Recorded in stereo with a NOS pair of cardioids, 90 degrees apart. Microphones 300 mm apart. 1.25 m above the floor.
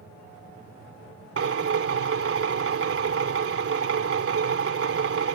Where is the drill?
45° right.